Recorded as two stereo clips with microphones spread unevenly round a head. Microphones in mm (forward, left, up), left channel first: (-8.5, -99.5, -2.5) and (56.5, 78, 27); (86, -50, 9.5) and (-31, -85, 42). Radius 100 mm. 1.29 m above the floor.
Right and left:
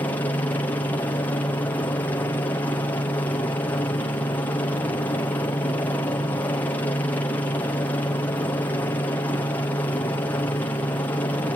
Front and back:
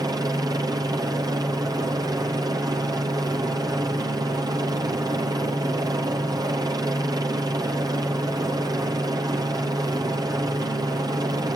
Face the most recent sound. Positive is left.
turn(degrees=-130)